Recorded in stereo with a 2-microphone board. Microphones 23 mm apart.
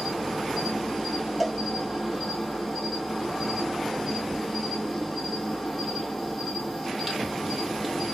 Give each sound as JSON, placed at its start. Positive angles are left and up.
{"t": 0.0, "sound": "an insect", "side_deg": -5, "distance_m": 1.6}
{"t": 1.4, "sound": "a cowbell", "side_deg": -5, "distance_m": 0.7}